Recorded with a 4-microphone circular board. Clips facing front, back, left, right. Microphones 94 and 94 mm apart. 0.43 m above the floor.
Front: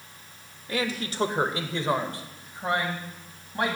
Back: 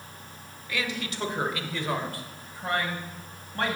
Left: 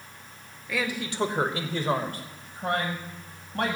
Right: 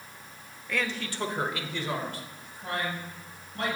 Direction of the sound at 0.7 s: 5° left.